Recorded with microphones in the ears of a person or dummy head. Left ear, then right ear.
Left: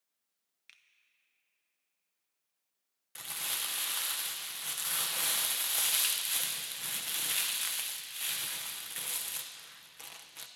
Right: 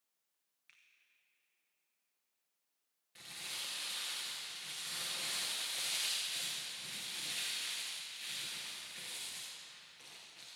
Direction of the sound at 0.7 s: 25° left (ahead or behind).